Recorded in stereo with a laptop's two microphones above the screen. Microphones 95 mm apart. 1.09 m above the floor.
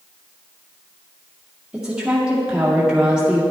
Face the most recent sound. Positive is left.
turn(degrees=-10)  # may be behind; listen again after turning